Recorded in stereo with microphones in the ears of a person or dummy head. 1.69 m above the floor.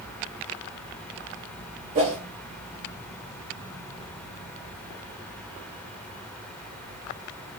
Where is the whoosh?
40° right (ahead or behind), 0.9 m.